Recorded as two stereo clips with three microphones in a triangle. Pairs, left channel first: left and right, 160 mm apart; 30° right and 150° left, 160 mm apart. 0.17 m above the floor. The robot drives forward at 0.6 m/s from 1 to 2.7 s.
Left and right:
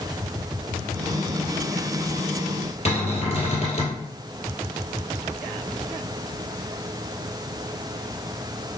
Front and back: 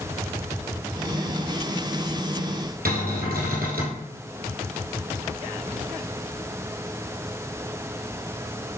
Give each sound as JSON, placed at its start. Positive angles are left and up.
{"t": 2.9, "sound": "a cupboard door", "azimuth_deg": 140, "distance_m": 1.9}